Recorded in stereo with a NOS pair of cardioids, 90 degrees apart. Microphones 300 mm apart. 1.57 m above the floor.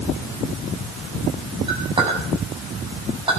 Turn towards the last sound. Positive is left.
turn(degrees=-15)